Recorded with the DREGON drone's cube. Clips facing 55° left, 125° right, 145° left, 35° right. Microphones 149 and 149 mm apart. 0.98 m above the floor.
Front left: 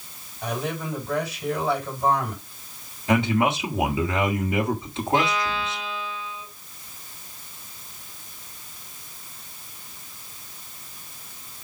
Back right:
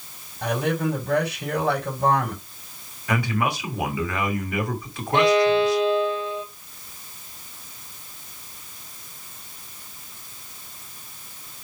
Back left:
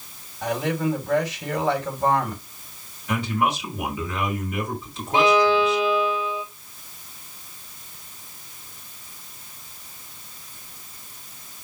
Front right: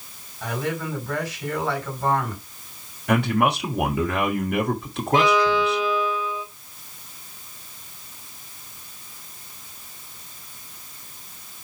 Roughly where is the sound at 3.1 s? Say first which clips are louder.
Front left 4 dB, front right 4 dB; ahead.